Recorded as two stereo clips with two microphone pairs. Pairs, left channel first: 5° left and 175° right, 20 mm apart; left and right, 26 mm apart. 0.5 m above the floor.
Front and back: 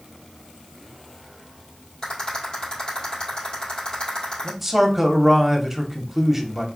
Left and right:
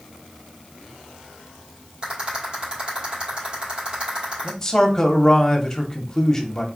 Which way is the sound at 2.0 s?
40° right.